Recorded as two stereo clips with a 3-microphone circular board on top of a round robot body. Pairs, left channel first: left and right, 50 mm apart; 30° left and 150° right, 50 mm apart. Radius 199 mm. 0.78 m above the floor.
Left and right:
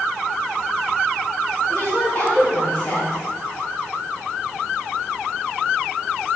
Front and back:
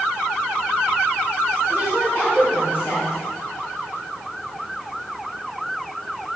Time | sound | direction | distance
1.7 | a woman speaking | 40° left | 2.5 m